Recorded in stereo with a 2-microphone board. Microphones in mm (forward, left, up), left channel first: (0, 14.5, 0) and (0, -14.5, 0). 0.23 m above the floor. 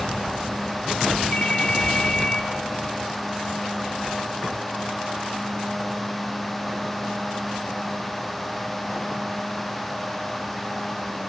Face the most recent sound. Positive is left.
turn(degrees=45)  # may be behind; listen again after turning